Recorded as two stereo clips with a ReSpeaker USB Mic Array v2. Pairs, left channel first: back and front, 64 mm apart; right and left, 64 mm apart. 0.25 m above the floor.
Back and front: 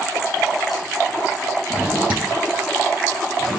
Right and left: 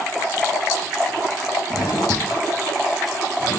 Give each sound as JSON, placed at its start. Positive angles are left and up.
{"t": 1.7, "sound": "a drawer", "azimuth_deg": -70, "distance_m": 4.0}